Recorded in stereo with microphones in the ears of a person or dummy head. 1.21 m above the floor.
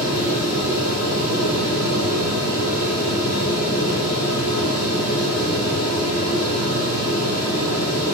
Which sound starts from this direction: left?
A fan, at 0.0 s.